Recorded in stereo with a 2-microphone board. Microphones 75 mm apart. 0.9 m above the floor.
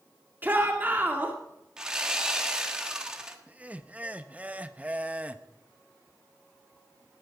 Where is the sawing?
10° right (ahead or behind), 1.6 m.